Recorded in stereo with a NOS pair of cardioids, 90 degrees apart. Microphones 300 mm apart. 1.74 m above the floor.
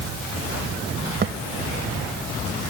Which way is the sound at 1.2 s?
35° right.